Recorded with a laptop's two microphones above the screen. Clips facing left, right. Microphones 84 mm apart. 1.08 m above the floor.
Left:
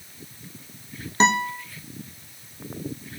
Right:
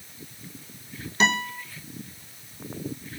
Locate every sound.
1.2 s a guitar: 30° left (ahead or behind), 0.6 m